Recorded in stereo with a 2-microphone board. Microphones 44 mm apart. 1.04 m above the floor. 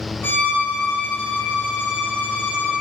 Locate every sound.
0.2 s a violin: 50° left (ahead or behind), 4 m